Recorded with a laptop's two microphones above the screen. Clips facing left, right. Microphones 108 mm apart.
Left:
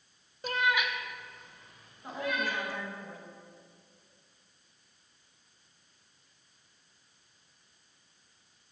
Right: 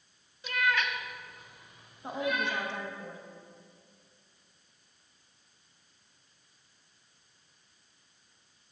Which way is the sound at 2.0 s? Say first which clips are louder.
Right 2 dB; 25° right (ahead or behind).